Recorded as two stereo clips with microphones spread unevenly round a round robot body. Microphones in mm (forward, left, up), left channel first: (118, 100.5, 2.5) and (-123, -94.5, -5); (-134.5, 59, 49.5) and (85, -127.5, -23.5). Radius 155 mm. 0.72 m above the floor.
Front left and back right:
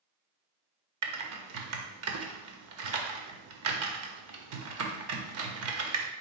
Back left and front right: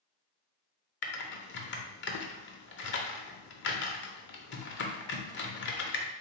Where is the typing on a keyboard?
Straight behind, 0.6 m.